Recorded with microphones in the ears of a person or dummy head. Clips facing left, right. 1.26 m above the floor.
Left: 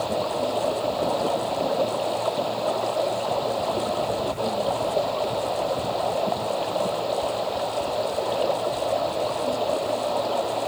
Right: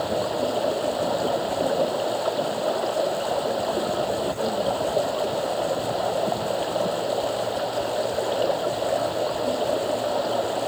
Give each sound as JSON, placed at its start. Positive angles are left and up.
{"t": 0.0, "sound": "running water", "side_deg": -10}